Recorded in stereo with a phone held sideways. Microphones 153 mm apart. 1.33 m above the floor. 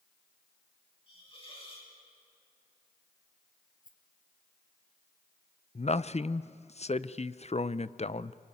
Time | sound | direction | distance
1.1 | a hiss | 35° left (ahead or behind) | 6 m
3.8 | a rattle | 60° left (ahead or behind) | 2.5 m
5.8 | a man speaking | 45° left (ahead or behind) | 0.6 m